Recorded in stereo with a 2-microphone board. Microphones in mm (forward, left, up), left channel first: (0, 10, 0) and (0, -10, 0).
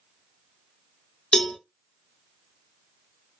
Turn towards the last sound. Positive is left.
turn(degrees=40)  # may be behind; listen again after turning